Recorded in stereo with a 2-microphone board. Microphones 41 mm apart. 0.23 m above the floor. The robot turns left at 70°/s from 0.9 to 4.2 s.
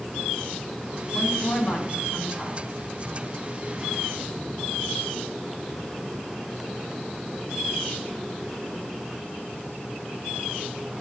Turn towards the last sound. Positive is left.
turn(degrees=-115)